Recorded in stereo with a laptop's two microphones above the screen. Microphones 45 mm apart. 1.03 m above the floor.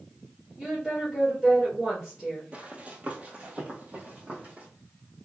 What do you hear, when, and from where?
0.6 s a woman speaking: centre (ahead or behind), 2.5 m
2.5 s running footsteps: 35° right (ahead or behind), 1.2 m; by 4.7 s 30° right (ahead or behind), 1.7 m